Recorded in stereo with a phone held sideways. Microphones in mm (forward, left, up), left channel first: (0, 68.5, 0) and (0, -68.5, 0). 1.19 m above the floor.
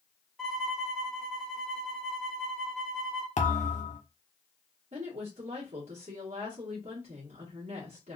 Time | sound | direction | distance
0.4 | a violin | centre (ahead or behind) | 1.6 m
3.4 | a thud | 60° left (ahead or behind) | 1.1 m
4.9 | a woman speaking | 55° right (ahead or behind) | 1.6 m